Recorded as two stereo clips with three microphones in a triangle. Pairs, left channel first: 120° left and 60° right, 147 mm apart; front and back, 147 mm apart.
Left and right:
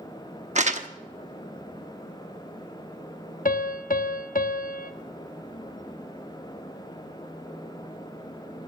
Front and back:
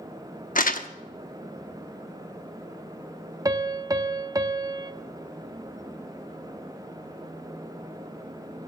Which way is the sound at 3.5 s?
115° left.